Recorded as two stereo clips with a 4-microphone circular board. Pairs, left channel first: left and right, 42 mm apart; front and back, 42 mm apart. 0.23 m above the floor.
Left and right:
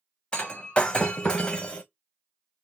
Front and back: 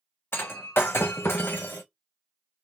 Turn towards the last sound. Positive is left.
turn(degrees=25)